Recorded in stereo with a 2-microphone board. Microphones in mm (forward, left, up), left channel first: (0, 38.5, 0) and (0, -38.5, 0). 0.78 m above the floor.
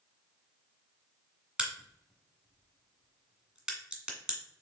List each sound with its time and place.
1.6 s a crack: 10° right (ahead or behind), 1.3 m